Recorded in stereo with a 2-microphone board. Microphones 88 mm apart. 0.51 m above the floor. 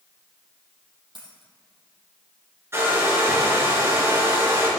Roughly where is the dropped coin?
Right.